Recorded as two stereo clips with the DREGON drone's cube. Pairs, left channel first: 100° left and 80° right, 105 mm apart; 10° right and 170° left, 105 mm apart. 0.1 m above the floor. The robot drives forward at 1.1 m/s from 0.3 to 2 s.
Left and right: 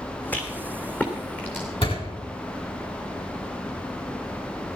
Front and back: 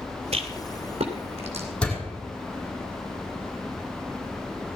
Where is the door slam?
70° left, 4.5 m.